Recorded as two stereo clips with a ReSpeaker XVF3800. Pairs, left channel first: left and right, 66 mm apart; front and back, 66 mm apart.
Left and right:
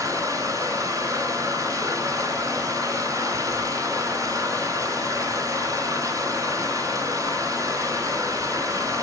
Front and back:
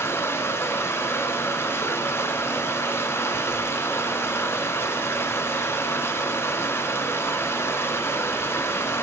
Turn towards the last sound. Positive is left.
turn(degrees=-55)